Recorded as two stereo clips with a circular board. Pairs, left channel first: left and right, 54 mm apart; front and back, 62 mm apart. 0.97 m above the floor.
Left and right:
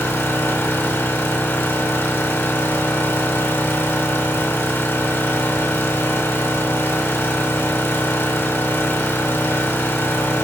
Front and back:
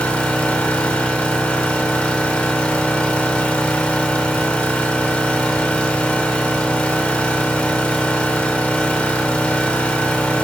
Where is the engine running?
65° left, 0.9 m.